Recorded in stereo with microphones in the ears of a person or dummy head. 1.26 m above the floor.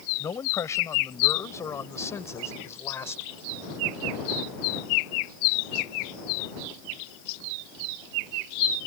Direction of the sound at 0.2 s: 20° left (ahead or behind).